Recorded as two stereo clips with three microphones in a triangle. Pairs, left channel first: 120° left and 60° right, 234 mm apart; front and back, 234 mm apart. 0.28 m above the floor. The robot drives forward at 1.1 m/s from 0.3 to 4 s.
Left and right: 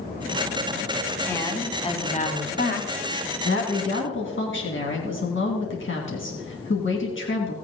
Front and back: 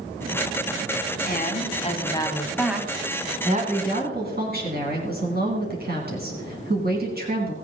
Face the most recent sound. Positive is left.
turn(degrees=140)